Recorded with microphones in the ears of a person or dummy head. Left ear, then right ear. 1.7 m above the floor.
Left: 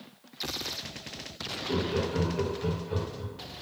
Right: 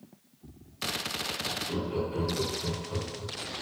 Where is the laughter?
15° left (ahead or behind), 0.7 m.